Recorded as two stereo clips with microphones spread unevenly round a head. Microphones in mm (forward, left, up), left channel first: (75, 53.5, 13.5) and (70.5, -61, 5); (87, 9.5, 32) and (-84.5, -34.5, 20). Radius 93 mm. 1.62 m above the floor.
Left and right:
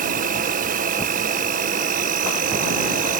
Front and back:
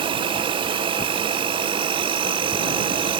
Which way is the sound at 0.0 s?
100° right.